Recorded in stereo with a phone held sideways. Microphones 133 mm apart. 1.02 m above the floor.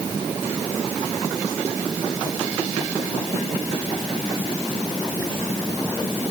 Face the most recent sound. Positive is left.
No sound to turn to.